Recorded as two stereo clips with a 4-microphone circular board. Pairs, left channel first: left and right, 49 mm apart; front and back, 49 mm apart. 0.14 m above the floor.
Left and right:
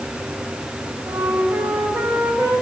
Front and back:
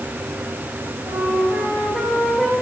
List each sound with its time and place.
1.0 s a flute: 85° right, 7.5 m